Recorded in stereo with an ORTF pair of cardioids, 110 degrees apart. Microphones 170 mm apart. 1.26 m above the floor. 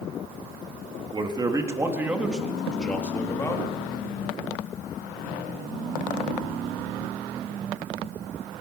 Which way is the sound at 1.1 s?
25° right.